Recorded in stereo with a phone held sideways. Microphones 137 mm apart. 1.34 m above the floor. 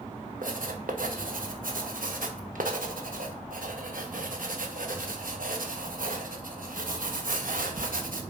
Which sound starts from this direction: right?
Writing, at 0.4 s.